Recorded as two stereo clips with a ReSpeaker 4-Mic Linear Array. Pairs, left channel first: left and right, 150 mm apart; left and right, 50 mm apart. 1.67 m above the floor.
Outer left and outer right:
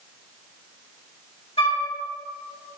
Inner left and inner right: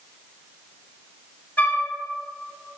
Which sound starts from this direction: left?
A flute, at 1.6 s.